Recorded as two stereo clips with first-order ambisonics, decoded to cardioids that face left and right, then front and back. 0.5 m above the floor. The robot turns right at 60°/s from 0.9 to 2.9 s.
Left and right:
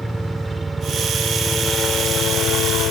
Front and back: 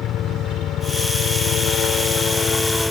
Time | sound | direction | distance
0.0 | a helicopter | 5° right | ?